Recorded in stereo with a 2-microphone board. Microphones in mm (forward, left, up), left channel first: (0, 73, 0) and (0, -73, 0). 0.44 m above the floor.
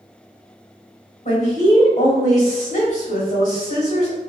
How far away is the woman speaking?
About 1.8 m.